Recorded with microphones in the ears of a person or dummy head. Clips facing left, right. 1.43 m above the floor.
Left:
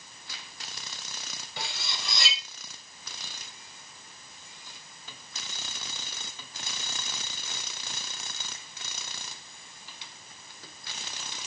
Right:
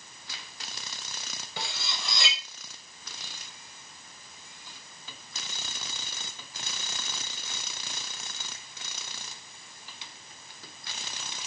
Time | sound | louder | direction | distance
1.6 | cutlery clinking | right 1 dB | 75° right (ahead or behind) | 4.5 m